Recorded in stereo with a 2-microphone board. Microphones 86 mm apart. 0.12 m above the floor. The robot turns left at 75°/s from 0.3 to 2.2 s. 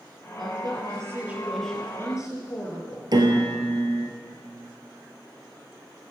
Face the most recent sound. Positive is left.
turn(degrees=-60)  # may be behind; listen again after turning